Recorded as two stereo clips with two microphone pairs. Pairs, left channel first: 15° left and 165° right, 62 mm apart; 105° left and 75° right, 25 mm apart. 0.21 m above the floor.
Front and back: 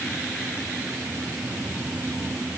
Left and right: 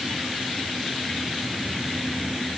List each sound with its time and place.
Only background noise.